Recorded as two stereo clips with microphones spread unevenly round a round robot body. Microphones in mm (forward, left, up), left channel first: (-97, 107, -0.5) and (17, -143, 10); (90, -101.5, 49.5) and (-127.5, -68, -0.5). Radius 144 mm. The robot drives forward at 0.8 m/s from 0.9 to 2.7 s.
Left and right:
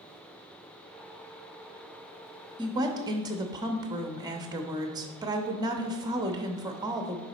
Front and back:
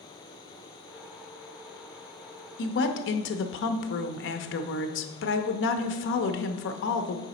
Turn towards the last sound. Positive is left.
turn(degrees=5)